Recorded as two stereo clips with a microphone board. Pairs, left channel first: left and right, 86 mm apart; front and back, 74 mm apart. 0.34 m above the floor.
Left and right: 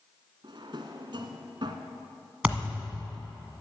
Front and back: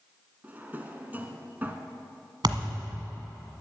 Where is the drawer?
115° right, 1.2 m.